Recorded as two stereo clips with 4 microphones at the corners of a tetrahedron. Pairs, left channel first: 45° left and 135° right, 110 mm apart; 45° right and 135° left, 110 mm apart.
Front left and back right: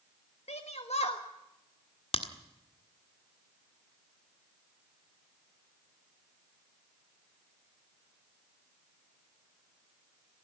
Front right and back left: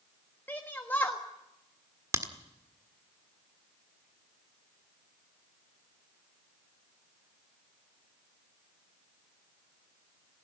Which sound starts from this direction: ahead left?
A shout, at 0.5 s.